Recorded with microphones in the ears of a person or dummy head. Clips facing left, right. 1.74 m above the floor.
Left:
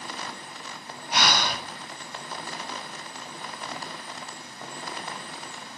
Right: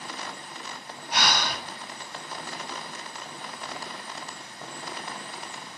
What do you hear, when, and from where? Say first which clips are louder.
1.1 s breathing: left 2 dB; 65° left (ahead or behind), 0.7 m